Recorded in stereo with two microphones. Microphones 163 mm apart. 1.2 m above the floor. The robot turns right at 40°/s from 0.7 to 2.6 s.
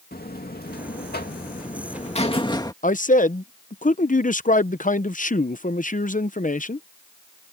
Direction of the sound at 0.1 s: 80° left.